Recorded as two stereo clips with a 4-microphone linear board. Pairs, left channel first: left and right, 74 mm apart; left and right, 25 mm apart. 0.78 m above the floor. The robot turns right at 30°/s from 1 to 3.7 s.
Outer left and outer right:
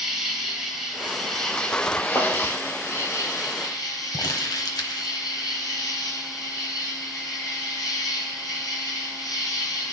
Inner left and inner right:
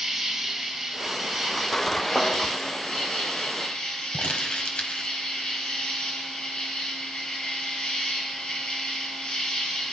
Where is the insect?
5° right, 3.5 m; by 9.9 s 75° left, 3.5 m.